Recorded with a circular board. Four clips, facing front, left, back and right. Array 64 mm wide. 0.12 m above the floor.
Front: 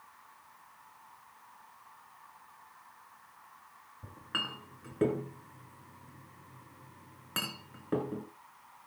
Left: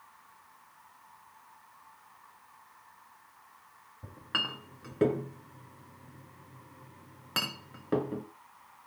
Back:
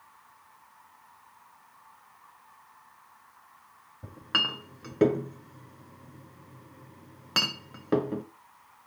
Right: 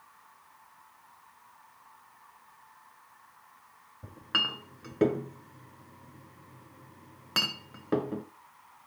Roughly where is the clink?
Behind.